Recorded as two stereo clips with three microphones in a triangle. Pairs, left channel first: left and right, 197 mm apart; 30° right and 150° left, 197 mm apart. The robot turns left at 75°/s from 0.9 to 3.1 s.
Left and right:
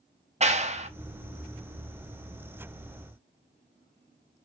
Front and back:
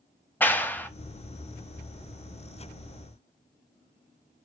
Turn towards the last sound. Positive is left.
turn(degrees=90)